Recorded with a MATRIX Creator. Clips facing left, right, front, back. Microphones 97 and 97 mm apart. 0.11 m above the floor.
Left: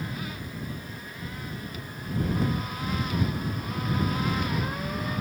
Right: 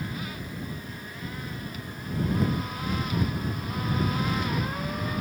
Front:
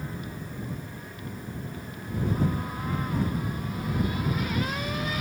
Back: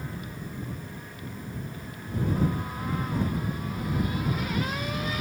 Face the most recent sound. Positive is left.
No sound to turn to.